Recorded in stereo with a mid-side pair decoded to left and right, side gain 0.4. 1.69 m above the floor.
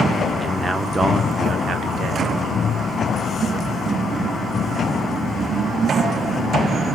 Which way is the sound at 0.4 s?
15° right.